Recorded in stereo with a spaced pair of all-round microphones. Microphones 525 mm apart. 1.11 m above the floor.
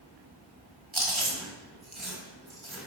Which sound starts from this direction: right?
Chewing, at 0.9 s.